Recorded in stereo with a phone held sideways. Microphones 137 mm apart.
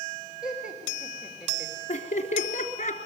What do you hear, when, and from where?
0.4 s laughter: 5° right (ahead or behind), 3.5 m
1.9 s laughter: 60° left (ahead or behind), 3.5 m